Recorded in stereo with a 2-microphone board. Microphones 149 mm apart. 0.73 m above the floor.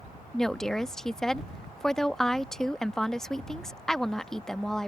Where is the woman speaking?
5° left (ahead or behind).